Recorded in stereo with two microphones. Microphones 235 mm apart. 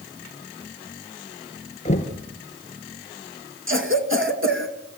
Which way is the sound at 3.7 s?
55° right (ahead or behind).